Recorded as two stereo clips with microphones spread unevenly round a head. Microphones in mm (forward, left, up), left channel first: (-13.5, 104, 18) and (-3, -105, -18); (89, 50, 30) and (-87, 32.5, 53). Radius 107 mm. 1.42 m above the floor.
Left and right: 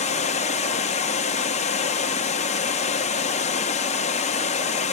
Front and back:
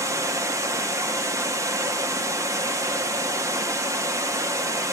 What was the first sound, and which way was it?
Running water, 125° left.